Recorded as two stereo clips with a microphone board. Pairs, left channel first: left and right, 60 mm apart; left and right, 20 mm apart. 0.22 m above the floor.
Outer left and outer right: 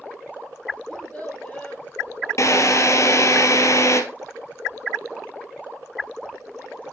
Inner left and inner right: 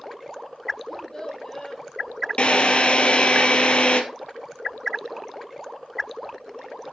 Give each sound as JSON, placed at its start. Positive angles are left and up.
{"t": 0.9, "sound": "a child speaking", "side_deg": 10, "distance_m": 3.5}
{"t": 2.4, "sound": "a drill", "side_deg": 55, "distance_m": 2.0}